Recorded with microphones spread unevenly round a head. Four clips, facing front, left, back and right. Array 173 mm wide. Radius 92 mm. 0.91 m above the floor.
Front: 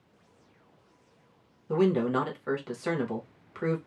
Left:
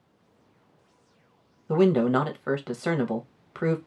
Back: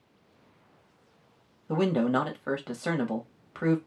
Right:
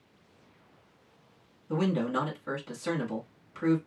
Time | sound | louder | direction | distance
1.7 | a man speaking | left 8 dB, even | 115° left | 1.0 m